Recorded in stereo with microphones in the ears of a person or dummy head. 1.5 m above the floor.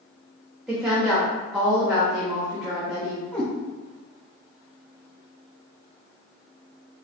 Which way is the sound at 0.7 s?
Centre (ahead or behind).